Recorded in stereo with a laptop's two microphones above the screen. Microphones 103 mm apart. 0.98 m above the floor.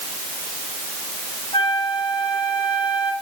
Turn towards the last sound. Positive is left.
turn(degrees=55)  # may be behind; listen again after turning